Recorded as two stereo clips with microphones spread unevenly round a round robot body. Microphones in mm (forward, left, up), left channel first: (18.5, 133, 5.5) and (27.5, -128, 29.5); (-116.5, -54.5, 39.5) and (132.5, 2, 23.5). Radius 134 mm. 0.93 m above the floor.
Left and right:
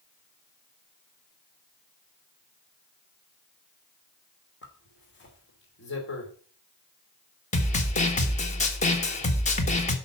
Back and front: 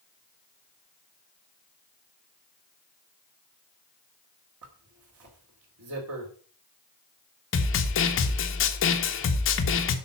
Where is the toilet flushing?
No toilet flushing in this recording.